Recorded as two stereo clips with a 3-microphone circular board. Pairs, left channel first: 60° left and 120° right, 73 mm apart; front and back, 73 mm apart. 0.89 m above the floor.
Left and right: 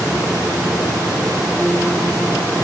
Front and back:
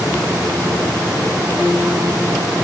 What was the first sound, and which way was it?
Only background noise.